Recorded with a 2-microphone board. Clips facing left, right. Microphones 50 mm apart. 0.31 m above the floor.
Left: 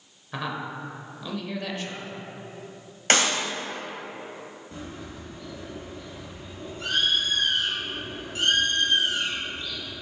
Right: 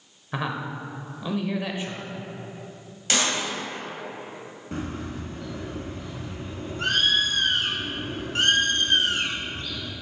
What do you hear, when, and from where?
0.3 s a man speaking: 20° right (ahead or behind), 0.9 m
3.1 s a clap: 45° left (ahead or behind), 1.8 m
4.7 s a bird: 60° right (ahead or behind), 1.1 m